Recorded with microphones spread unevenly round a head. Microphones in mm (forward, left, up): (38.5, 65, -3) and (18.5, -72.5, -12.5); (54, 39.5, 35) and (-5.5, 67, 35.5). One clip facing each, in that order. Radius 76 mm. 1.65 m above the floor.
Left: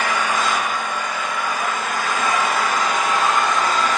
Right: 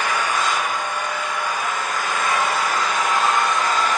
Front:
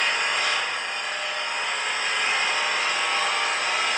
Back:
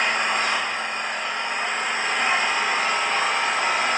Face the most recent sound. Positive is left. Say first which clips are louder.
# left 1 dB, back 2 dB
turn(degrees=110)